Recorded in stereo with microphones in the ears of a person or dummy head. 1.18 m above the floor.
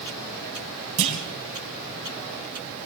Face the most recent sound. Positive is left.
turn(degrees=-35)  # may be behind; listen again after turning